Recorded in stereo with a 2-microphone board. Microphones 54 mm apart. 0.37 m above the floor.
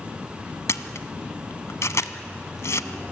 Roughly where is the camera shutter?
Left.